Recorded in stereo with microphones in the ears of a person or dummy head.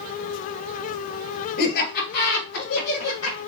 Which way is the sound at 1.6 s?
60° left (ahead or behind).